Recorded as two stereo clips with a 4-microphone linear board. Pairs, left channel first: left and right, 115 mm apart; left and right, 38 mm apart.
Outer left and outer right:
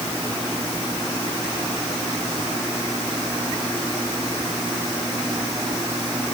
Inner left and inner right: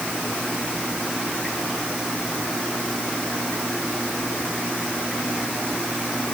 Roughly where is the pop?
No pop in this recording.